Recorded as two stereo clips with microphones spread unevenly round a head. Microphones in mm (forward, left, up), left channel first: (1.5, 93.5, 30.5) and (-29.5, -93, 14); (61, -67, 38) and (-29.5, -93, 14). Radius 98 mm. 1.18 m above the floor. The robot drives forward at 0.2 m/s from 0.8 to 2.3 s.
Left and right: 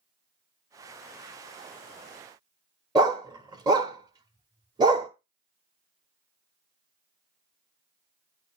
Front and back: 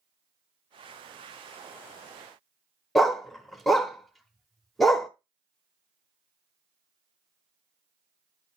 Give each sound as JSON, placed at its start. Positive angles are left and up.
{"t": 3.0, "sound": "a dog barking", "azimuth_deg": -45, "distance_m": 0.8}